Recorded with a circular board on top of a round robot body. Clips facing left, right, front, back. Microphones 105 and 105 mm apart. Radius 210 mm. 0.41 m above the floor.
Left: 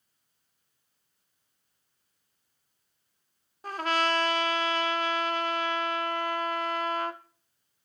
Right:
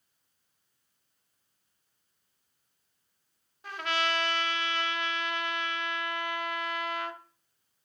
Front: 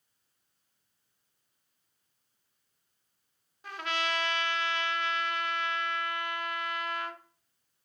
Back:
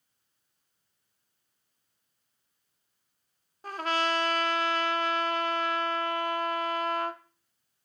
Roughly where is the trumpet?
Behind left.